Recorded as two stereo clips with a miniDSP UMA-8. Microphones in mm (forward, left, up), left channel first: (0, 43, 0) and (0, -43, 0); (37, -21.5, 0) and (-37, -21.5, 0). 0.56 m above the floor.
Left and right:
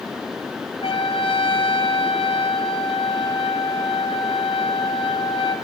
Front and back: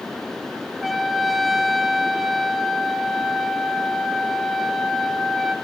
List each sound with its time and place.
0.8 s a trumpet: 90° left, 3.5 m